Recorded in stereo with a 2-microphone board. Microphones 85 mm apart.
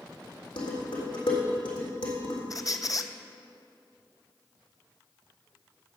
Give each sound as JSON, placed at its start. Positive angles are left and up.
{"t": 0.6, "sound": "dishes clattering", "side_deg": 75, "distance_m": 3.5}
{"t": 2.5, "sound": "a squeak", "side_deg": 45, "distance_m": 0.5}